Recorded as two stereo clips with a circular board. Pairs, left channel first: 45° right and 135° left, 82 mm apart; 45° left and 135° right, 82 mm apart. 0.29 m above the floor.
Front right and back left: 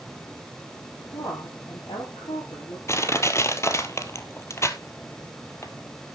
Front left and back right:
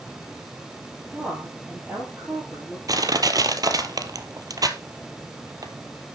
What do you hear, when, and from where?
1.1 s a woman speaking: 65° right, 7 m
2.9 s crushing: 100° right, 1.3 m